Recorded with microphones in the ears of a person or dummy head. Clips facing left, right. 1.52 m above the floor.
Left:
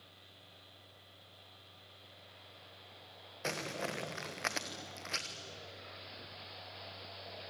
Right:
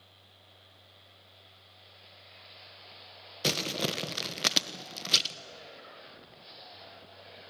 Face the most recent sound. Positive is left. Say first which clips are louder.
# right 7 dB
turn(degrees=-45)  # may be behind; listen again after turning